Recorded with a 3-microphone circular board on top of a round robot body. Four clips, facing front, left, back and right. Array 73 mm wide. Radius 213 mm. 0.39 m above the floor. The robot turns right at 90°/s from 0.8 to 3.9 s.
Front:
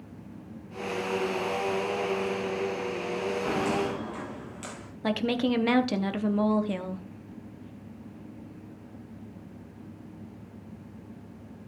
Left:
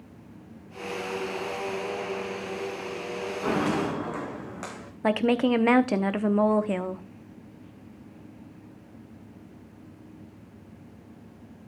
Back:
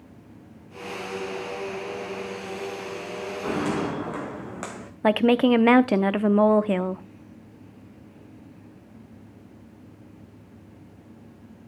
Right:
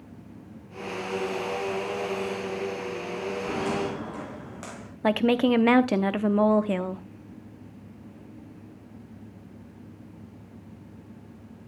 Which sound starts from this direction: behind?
A woman speaking, at 5.0 s.